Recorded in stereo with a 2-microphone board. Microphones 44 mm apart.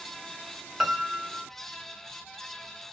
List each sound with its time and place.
0.8 s a piano: 15° right (ahead or behind), 0.6 m